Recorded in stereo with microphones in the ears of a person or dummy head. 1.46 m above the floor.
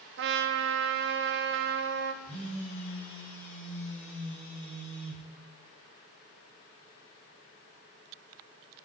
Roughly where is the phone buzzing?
Centre.